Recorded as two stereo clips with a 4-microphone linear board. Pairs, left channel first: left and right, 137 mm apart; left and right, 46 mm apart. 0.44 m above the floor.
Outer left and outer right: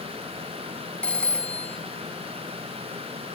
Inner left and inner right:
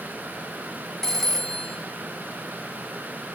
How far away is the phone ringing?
About 2.5 m.